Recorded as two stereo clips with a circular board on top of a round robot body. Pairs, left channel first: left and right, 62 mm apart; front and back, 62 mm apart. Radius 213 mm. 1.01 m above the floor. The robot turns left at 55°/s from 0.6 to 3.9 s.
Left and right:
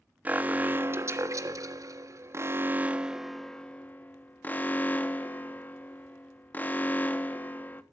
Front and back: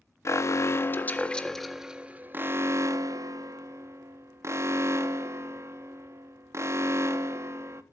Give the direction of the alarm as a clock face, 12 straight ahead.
1 o'clock.